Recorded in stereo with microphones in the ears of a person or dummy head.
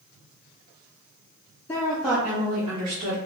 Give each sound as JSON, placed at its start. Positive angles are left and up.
{"t": 1.7, "sound": "a woman speaking", "side_deg": 15, "distance_m": 0.6}